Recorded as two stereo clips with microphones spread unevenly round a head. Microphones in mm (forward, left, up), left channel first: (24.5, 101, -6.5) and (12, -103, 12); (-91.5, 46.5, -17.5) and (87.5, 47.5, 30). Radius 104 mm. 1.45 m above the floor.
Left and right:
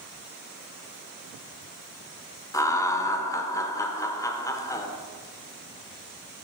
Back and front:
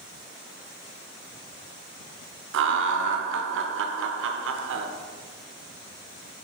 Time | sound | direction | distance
2.5 | laughter | 10° left | 0.8 m